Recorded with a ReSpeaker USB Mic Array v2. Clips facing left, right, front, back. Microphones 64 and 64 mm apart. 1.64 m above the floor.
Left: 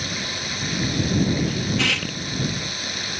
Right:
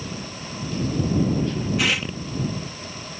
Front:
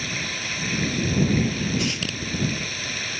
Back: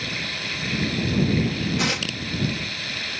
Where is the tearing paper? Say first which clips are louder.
Even, back 2 dB; 175° right.